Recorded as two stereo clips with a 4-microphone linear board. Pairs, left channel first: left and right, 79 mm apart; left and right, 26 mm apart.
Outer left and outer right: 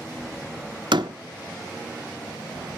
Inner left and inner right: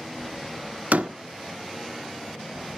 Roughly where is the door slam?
Right.